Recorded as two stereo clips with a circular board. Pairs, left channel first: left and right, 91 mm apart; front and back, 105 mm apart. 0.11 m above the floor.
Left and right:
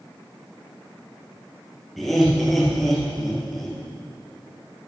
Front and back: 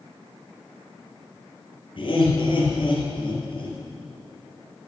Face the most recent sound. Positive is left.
turn(degrees=0)